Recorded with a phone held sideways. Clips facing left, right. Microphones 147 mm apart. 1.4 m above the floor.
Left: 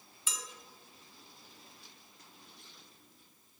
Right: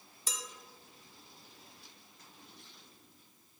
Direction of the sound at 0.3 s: 40° right (ahead or behind).